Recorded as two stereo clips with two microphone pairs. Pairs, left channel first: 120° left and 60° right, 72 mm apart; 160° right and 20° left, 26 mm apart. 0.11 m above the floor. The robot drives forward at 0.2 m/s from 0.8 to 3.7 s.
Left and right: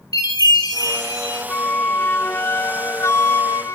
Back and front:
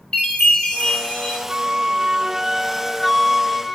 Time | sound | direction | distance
0.1 | a chime | 145° left | 7 m
1.5 | a flute | 65° left | 0.6 m